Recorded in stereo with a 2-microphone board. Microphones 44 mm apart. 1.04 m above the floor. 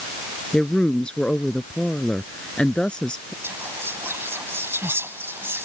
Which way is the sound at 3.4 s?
65° right (ahead or behind).